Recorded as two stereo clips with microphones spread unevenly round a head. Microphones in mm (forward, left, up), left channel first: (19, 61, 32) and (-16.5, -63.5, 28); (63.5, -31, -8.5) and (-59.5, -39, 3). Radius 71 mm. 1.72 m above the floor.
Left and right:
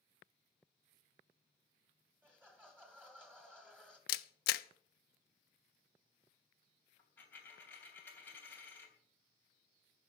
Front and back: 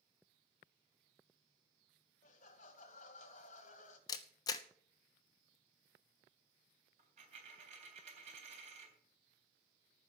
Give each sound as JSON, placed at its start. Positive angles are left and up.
{"t": 2.2, "sound": "laughter", "azimuth_deg": -25, "distance_m": 3.0}
{"t": 4.1, "sound": "a camera shutter", "azimuth_deg": 70, "distance_m": 0.8}
{"t": 7.0, "sound": "a dropped coin", "azimuth_deg": 150, "distance_m": 3.5}